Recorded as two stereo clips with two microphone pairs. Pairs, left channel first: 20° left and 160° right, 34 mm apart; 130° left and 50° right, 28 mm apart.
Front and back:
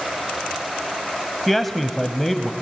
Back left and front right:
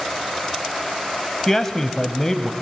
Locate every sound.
1.5 s a man speaking: 100° left, 1.0 m